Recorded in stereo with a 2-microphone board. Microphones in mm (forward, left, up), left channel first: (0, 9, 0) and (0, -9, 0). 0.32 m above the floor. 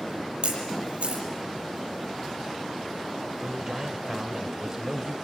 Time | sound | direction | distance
0.4 | a camera shutter | 75° right (ahead or behind) | 7 m
3.4 | a man speaking | 25° right (ahead or behind) | 1.0 m